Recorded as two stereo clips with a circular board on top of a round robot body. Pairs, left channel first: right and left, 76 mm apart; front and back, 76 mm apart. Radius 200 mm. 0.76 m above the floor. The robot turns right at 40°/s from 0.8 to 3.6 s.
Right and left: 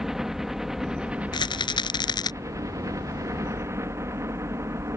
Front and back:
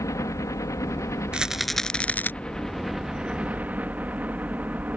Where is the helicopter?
10° left; by 5.0 s 120° left.